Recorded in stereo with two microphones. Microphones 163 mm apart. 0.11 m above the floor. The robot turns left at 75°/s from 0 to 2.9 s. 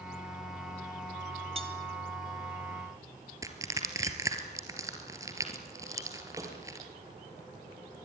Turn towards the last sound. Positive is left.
turn(degrees=-20)  # may be behind; listen again after turning